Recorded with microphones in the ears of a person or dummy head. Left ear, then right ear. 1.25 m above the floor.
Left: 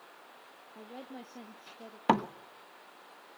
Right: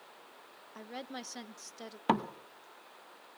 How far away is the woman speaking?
About 1.3 m.